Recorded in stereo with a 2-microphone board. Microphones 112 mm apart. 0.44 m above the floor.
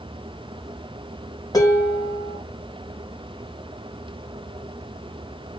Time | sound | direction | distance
1.5 | dishes clattering | 35° left (ahead or behind) | 0.7 m